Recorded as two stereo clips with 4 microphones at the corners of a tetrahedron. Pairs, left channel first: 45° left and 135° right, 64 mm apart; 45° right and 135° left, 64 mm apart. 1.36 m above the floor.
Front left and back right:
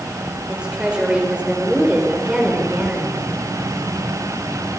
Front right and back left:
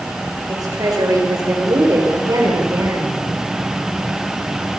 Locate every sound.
0.5 s a woman speaking: 150° left, 4.5 m